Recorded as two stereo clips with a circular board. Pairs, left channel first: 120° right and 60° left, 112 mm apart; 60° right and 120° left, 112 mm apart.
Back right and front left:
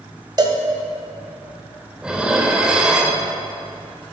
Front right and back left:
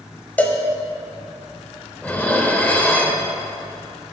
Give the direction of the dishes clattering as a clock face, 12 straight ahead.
12 o'clock.